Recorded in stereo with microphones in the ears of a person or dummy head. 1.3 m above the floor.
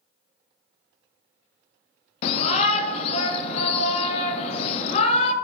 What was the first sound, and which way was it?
A shout, 50° left (ahead or behind).